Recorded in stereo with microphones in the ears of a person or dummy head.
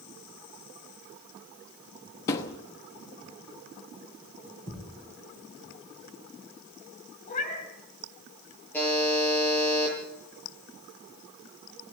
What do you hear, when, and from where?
2.3 s a thud: 20° left (ahead or behind), 1.1 m
4.7 s a thud: 25° left (ahead or behind), 5.5 m
7.3 s a cat meowing: 40° left (ahead or behind), 3 m
8.7 s a buzzer: 10° left (ahead or behind), 10 m